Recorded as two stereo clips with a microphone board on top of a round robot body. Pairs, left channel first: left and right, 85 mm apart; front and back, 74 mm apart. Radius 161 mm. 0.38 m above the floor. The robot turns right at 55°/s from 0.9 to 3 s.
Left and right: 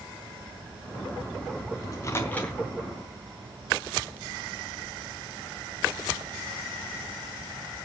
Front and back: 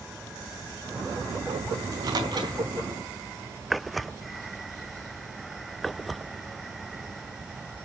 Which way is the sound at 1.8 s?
135° left.